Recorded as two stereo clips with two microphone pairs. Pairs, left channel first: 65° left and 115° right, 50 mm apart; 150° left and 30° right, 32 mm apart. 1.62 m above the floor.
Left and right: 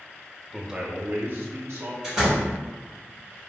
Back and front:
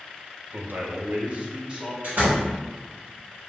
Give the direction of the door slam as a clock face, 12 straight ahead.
1 o'clock.